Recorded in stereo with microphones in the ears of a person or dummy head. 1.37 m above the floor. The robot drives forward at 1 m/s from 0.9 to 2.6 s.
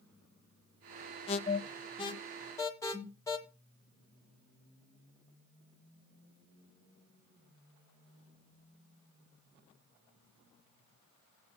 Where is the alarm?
35° left (ahead or behind), 0.8 m; by 3.4 s 15° left (ahead or behind), 1.4 m.